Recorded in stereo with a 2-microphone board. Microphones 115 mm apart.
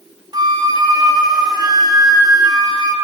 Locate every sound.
0.3 s a flute: 35° right (ahead or behind), 0.6 m